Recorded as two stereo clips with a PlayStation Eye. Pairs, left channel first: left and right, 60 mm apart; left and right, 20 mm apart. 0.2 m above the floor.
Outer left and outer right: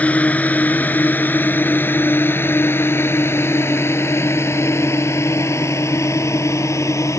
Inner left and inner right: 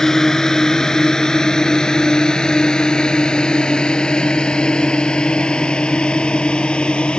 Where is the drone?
25° left (ahead or behind); by 7.2 s 60° left (ahead or behind).